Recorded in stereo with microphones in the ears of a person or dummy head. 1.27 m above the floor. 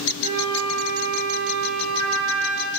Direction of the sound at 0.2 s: 30° right (ahead or behind).